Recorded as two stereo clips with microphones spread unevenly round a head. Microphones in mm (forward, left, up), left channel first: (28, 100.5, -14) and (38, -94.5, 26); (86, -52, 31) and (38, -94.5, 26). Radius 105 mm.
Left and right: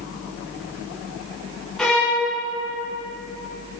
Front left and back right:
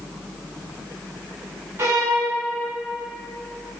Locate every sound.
1.8 s a violin: 165° right, 1.0 m